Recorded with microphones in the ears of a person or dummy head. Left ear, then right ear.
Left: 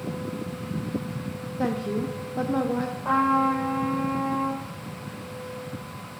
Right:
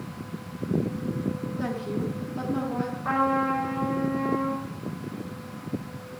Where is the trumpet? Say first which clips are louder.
Left 3 dB; centre (ahead or behind), 5 m.